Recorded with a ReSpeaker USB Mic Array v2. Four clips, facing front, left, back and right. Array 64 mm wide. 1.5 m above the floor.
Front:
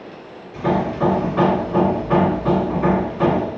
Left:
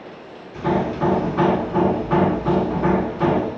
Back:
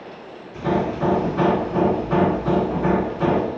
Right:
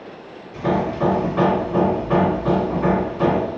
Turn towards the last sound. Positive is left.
turn(degrees=-40)